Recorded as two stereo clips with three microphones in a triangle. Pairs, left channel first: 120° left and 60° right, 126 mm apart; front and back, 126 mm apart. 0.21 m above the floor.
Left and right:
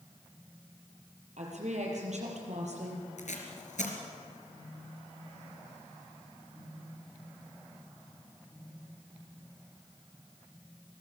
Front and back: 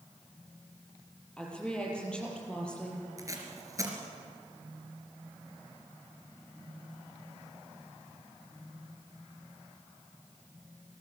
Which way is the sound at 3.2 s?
115° left.